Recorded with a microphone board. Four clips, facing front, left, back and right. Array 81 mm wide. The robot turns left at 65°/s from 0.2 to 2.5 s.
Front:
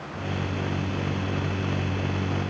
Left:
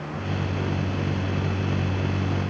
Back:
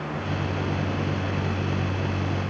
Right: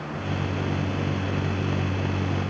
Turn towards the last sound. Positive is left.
No sound to turn to.